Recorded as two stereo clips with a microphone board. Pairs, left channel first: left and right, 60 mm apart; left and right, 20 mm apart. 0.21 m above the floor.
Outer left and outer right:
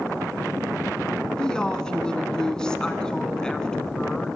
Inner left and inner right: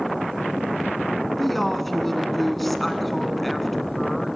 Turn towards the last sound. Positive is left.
turn(degrees=10)  # may be behind; listen again after turning